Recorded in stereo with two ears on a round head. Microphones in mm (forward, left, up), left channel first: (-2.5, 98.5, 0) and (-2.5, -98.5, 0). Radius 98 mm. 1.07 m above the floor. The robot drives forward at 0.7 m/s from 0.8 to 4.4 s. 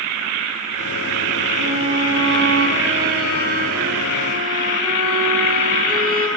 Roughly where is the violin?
Right.